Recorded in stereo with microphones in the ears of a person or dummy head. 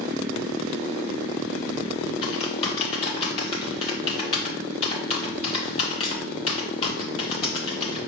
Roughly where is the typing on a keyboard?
Left.